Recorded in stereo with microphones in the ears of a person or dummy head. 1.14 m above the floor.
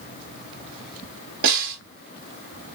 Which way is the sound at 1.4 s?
55° right (ahead or behind).